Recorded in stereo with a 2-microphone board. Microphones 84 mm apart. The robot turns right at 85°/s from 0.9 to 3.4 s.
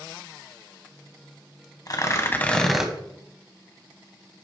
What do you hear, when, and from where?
1.9 s tearing paper: 105° left, 1.3 m; by 2.9 s 165° right, 1.3 m